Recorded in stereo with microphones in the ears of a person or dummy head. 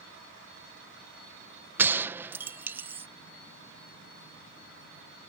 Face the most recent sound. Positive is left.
turn(degrees=-10)  # may be behind; listen again after turning